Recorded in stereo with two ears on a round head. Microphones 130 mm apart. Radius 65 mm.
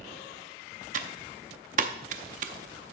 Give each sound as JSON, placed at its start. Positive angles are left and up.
{"t": 0.9, "sound": "typing on a keyboard", "side_deg": -50, "distance_m": 0.7}